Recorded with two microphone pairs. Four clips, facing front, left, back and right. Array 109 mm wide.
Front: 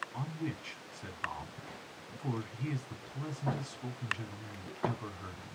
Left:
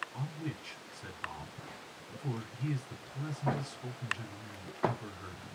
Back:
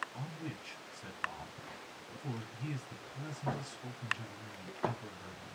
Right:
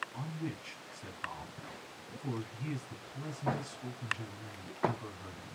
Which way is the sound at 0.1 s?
Straight ahead.